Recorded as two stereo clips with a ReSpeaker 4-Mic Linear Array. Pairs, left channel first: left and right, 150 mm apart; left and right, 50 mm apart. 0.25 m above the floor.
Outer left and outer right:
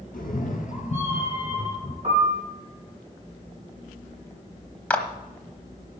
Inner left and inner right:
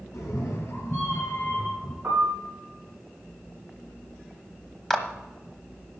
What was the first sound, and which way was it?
A cat meowing, 70° left (ahead or behind).